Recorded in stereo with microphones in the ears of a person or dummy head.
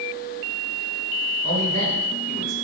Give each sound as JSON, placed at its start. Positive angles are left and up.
{"t": 1.4, "sound": "a man speaking", "side_deg": -50, "distance_m": 5.5}